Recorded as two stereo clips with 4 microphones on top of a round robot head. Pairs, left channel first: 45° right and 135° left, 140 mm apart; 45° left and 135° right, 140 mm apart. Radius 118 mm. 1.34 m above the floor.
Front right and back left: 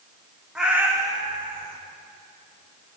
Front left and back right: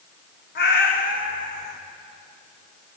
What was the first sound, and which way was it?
A cat meowing, 45° left.